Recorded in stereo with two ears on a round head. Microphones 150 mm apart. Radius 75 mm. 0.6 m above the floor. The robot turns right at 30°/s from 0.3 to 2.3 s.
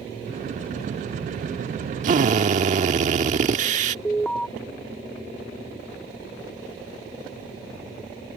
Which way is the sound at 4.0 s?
5° left (ahead or behind).